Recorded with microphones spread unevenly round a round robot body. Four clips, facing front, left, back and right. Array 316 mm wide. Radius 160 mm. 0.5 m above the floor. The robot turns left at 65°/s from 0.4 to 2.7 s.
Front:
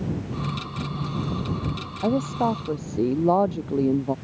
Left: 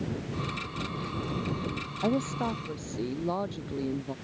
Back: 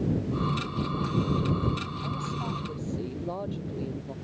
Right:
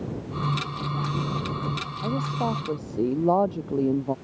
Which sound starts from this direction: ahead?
A woman speaking, at 2.0 s.